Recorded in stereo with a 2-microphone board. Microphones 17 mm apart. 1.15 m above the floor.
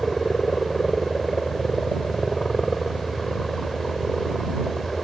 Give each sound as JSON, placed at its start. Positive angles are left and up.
{"t": 0.0, "sound": "a helicopter", "side_deg": 20}